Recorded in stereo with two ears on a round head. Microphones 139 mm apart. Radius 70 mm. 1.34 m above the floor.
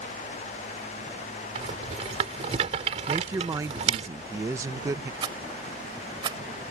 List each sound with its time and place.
1.6 s a rattle: 40° right (ahead or behind)
3.1 s a woman speaking: 20° right (ahead or behind)
5.2 s a rattle: 30° right (ahead or behind)